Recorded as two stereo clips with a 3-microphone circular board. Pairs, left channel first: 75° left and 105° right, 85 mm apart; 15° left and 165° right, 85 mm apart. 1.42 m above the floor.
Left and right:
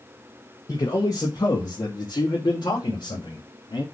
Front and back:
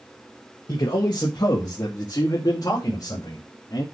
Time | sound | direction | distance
0.7 | a man speaking | 30° left | 1.6 m